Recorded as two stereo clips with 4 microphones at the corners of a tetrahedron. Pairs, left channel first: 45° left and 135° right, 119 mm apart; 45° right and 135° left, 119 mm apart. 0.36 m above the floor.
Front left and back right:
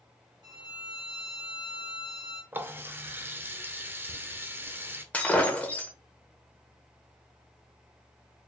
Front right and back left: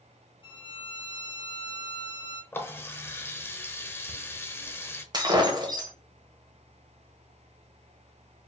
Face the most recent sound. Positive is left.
turn(degrees=120)